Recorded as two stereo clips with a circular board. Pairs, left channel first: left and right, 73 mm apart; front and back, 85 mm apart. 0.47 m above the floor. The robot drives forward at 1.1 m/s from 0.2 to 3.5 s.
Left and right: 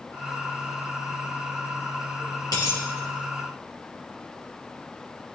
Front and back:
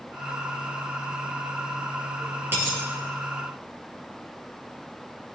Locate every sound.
2.5 s a dropped coin: 115° left, 5 m; by 2.8 s 120° left, 5 m